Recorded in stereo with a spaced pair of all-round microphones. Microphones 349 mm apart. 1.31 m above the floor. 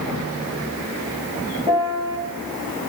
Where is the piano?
10° right (ahead or behind), 1.8 m.